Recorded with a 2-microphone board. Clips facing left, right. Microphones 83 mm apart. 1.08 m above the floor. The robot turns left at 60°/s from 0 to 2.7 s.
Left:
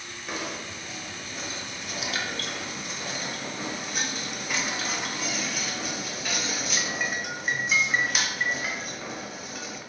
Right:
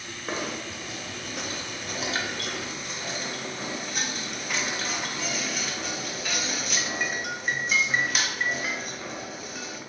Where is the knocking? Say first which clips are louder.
Right 2 dB; 35° right (ahead or behind), 0.6 m; by 9.8 s centre (ahead or behind), 0.6 m.